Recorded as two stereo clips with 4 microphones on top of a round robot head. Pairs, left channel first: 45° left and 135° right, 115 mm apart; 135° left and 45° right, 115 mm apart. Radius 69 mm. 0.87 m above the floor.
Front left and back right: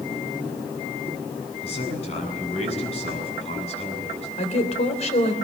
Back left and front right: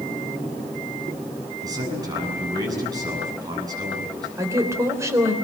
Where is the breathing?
No breathing in this recording.